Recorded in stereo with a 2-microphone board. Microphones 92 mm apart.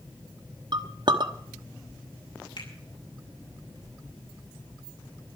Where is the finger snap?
65° left (ahead or behind), 6 m.